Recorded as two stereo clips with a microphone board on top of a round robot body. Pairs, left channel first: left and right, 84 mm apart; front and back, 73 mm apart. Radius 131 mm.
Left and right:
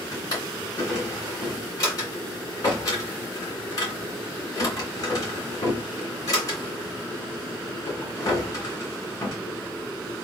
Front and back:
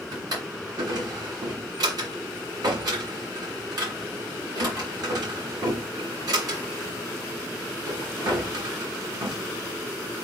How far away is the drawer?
About 2.5 m.